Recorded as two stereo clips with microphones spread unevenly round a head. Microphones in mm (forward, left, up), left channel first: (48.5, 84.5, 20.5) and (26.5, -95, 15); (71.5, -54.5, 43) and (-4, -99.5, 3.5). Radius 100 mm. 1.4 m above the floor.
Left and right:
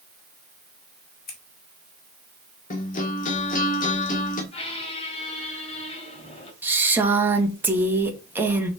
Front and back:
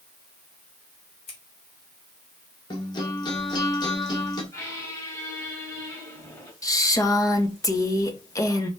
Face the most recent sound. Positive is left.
turn(degrees=-15)